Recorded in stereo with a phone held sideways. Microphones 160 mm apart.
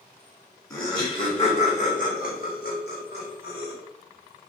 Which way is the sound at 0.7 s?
20° left (ahead or behind).